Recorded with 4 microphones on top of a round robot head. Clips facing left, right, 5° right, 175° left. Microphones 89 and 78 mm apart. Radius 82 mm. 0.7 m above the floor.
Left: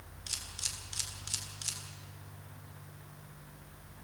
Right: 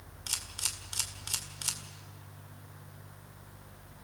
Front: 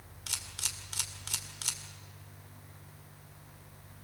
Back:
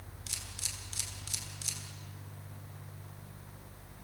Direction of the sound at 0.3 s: 45° right.